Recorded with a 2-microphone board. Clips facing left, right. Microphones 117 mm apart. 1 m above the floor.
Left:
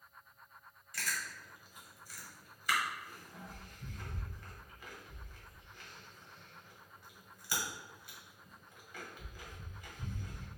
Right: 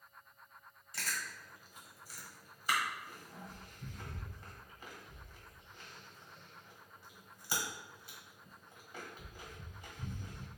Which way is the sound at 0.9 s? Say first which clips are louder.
Left 1 dB; 30° right (ahead or behind).